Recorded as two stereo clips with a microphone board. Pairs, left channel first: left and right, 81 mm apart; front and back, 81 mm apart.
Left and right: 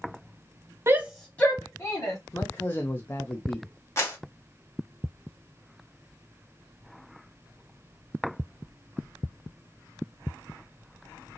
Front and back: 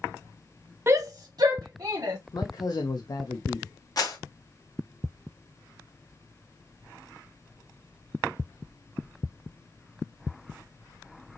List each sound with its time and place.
0.9 s a shout: 135° right, 0.6 m; by 2.2 s 140° left, 1.6 m
2.3 s a man speaking: 30° left, 0.7 m
4.0 s a clap: 40° left, 2 m